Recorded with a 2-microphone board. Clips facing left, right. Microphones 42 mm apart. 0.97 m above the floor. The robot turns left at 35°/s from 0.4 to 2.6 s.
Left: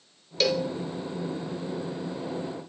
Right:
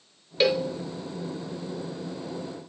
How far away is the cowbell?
About 0.9 m.